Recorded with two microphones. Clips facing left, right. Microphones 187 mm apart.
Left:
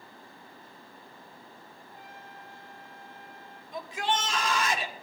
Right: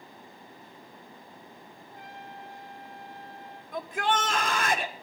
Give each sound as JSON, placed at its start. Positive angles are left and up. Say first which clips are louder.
{"t": 1.9, "sound": "a trumpet", "louder": "right 5 dB", "side_deg": -75, "distance_m": 4.5}
{"t": 3.7, "sound": "a shout", "louder": "right 2 dB", "side_deg": -50, "distance_m": 1.6}